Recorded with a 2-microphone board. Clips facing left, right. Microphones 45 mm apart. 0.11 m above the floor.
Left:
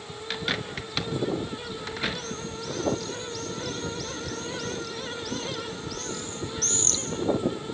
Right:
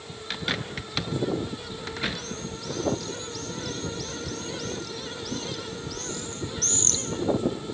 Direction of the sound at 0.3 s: Centre (ahead or behind).